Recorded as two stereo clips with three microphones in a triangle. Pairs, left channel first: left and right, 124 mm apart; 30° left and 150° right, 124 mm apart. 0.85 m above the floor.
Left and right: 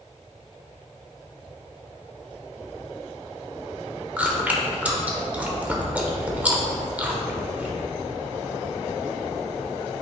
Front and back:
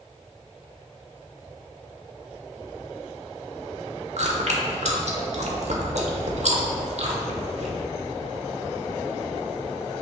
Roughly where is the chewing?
Behind.